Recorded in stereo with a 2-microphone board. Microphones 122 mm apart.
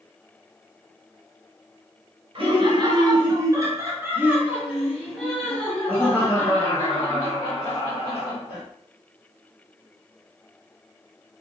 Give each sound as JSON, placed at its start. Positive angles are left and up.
{"t": 2.4, "sound": "laughter", "side_deg": -45, "distance_m": 1.8}